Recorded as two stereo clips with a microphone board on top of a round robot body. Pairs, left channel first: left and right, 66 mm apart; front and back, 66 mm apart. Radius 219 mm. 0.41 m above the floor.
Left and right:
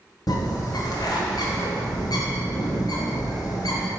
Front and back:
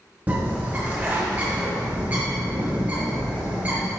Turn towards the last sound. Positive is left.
turn(degrees=115)